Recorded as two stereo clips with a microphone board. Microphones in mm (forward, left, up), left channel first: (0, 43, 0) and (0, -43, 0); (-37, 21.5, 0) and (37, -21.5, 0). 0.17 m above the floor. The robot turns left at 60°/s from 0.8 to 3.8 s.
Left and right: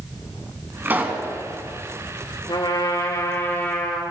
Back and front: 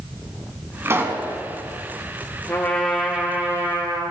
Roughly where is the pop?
Ahead right.